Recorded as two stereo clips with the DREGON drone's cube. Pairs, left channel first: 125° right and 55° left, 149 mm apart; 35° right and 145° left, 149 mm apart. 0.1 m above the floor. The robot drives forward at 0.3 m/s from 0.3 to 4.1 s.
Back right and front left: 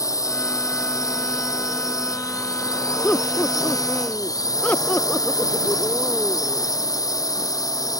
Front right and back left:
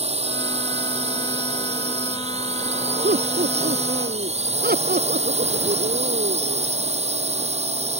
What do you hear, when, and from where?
0.0 s a drone: 175° left
3.0 s laughter: 155° left